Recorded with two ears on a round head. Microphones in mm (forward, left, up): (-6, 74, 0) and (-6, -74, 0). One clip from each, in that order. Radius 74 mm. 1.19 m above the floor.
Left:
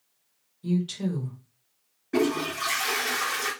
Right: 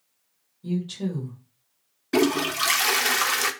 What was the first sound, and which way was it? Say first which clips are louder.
A woman speaking: left 1 dB; 50° left (ahead or behind).